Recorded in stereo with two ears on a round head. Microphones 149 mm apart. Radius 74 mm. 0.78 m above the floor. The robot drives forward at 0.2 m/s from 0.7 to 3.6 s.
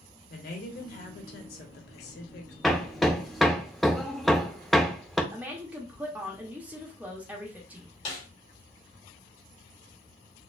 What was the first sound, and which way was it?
A woman speaking, 55° left (ahead or behind).